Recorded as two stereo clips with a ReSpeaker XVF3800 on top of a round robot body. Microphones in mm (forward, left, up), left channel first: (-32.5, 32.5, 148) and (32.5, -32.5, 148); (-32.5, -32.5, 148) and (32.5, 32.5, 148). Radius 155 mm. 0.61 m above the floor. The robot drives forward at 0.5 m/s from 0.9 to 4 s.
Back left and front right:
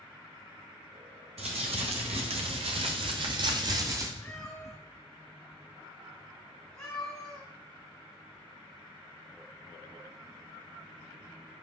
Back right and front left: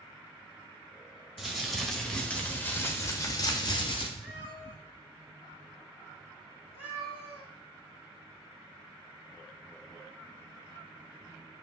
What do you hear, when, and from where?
1.4 s crumpling: 40° right, 1.5 m; by 4.1 s 100° right, 1.0 m
4.2 s a cat meowing: 145° right, 2.0 m